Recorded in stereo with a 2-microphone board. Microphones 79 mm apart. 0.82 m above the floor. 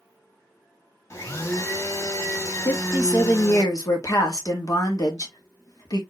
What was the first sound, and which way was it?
A blender, 40° left (ahead or behind).